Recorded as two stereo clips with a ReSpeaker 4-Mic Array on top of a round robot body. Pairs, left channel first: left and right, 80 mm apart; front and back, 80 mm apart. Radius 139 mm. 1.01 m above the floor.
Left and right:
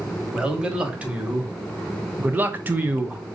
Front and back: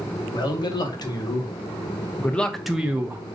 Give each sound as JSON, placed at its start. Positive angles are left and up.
{"t": 0.3, "sound": "a man speaking", "azimuth_deg": -15, "distance_m": 1.4}